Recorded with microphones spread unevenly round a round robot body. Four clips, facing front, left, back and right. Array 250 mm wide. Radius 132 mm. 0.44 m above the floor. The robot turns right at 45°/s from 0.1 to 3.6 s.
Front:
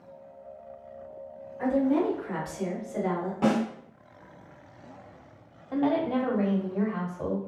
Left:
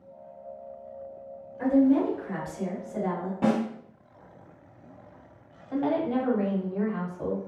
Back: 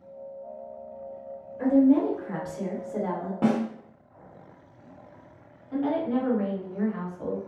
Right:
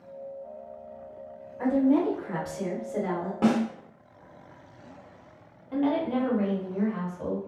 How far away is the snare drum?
About 1.6 m.